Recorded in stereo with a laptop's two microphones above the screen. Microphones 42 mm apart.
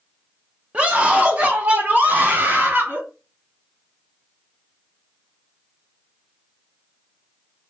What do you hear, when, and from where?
0.7 s a scream: 35° right (ahead or behind), 0.9 m; by 3.0 s 60° right (ahead or behind), 2.0 m